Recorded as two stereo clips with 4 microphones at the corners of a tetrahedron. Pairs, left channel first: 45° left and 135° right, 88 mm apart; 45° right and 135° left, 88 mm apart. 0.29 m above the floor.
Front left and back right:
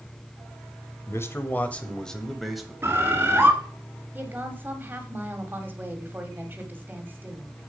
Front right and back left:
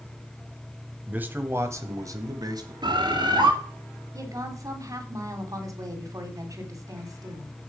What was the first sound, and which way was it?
A man speaking, 75° left.